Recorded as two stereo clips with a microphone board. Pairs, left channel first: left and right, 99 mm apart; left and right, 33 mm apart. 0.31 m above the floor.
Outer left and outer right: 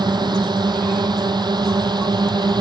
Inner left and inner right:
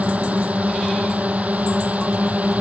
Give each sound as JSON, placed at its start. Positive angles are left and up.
{"t": 0.0, "sound": "a drone", "side_deg": -50}